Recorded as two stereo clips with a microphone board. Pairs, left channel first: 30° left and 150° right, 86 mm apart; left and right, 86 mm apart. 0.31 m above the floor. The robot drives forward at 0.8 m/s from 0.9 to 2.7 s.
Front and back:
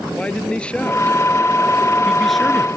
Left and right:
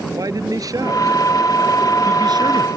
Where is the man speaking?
45° right; by 2.7 s 60° right.